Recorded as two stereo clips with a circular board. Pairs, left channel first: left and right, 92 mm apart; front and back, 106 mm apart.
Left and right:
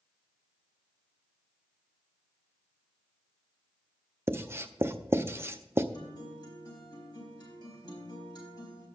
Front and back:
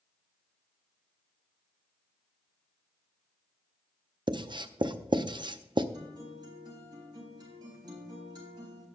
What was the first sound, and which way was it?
Writing, 145° right.